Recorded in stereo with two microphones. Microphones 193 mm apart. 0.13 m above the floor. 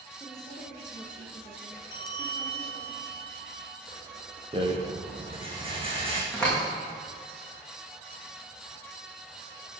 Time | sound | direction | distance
0.2 | a woman speaking | 15° left (ahead or behind) | 5.5 m
1.9 | a bell | 55° right (ahead or behind) | 1.7 m
4.5 | a rattle | 30° right (ahead or behind) | 3 m
6.3 | a door slam | 5° left (ahead or behind) | 6 m